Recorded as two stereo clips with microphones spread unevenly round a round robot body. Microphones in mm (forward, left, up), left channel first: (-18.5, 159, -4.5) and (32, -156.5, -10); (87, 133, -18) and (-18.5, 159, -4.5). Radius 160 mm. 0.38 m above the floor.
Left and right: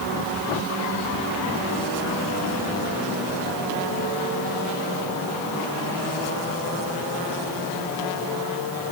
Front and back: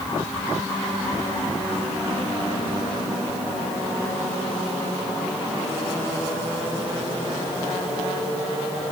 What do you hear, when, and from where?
Only background noise.